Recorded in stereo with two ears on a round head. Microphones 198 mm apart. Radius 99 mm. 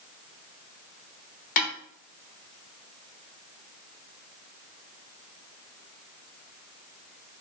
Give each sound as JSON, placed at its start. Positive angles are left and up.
{"t": 1.6, "sound": "a snare drum", "side_deg": 40, "distance_m": 1.4}